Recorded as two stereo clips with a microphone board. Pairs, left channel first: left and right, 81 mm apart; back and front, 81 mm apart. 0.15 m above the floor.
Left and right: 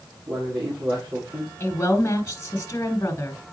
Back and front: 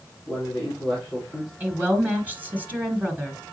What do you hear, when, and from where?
0.3 s a man speaking: 105° right, 4.5 m
1.6 s a woman speaking: 60° left, 1.5 m